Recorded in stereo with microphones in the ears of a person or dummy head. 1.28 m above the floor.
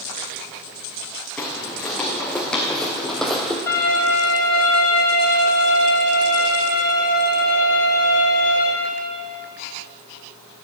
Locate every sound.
1.4 s footsteps: 10° left (ahead or behind), 4 m; by 3.6 s 5° left (ahead or behind), 1.9 m
3.7 s a violin: 15° left (ahead or behind), 4 m